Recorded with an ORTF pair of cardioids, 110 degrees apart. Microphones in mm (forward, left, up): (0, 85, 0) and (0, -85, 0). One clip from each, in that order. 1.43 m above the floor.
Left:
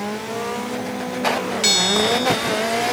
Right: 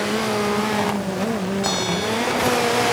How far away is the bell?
About 1.1 m.